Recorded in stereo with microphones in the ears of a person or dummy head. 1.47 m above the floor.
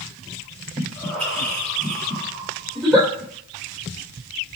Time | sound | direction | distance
0.8 | breathing | 5° left (ahead or behind) | 1.3 m
2.8 | a giggle | 5° right (ahead or behind) | 1.9 m